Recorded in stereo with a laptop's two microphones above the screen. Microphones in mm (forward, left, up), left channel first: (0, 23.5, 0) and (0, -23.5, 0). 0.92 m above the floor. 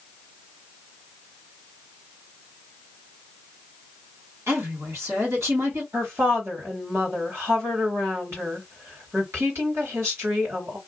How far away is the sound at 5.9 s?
About 2 m.